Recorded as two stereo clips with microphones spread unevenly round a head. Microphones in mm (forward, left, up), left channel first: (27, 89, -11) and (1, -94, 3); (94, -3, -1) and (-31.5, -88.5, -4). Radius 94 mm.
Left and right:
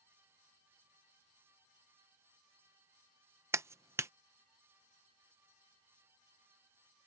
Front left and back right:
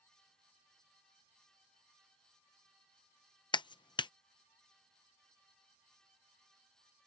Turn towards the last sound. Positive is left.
turn(degrees=-25)